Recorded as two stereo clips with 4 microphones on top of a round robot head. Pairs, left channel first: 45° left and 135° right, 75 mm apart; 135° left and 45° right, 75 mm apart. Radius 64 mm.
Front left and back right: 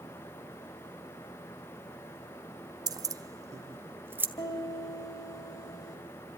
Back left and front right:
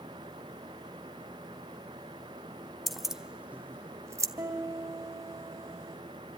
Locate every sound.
2.9 s keys jangling: 135° right, 1.0 m; by 4.3 s 80° right, 0.9 m
4.4 s a piano: 10° left, 4 m